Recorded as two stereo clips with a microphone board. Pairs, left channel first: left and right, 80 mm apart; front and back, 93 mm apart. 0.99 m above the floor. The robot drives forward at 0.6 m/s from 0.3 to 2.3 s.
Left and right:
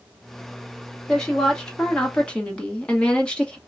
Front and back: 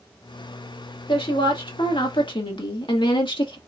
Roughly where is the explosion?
No explosion in this recording.